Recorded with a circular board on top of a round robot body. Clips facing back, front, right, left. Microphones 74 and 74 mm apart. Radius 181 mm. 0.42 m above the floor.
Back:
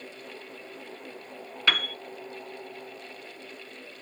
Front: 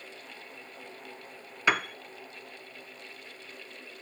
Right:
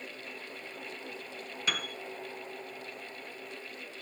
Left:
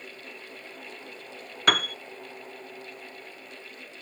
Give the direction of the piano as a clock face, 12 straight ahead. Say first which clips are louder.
Front 1 dB, left 11 dB; 10 o'clock.